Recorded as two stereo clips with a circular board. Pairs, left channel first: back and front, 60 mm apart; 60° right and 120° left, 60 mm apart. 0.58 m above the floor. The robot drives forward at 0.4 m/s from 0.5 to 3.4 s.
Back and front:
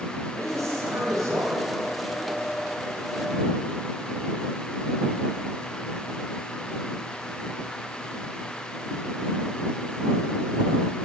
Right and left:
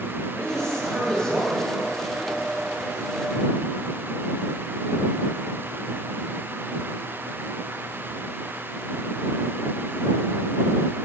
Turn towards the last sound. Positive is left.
turn(degrees=20)